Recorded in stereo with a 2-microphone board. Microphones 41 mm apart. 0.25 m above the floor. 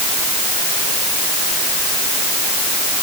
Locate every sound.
Only background noise.